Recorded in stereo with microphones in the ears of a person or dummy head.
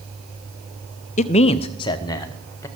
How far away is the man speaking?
About 0.5 m.